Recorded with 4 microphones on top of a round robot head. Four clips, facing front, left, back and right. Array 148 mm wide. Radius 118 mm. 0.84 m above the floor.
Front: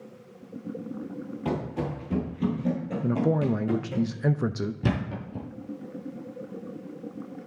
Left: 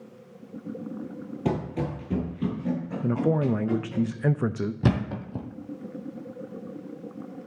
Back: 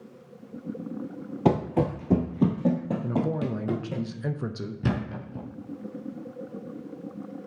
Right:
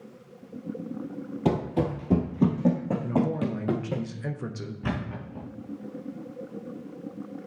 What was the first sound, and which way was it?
Running footsteps, 170° right.